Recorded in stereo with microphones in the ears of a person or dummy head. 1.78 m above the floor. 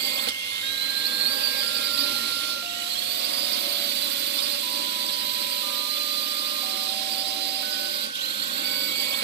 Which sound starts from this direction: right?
A drone, at 0.0 s.